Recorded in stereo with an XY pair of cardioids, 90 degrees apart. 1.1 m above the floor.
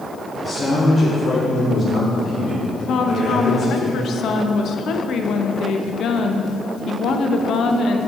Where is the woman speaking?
65° left, 0.7 m.